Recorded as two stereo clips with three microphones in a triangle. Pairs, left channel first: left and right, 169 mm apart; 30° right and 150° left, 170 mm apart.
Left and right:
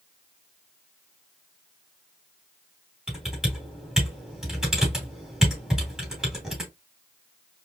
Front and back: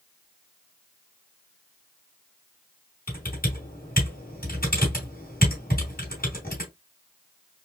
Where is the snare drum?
No snare drum in this recording.